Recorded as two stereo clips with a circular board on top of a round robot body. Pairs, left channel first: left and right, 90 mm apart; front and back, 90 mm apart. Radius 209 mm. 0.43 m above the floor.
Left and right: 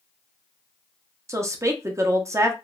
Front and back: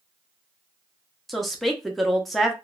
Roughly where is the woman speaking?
Right.